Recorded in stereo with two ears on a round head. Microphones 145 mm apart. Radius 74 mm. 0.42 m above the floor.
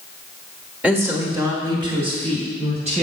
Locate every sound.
0.8 s a woman speaking: 10° right (ahead or behind), 1.4 m; by 3.0 s 45° right (ahead or behind), 3 m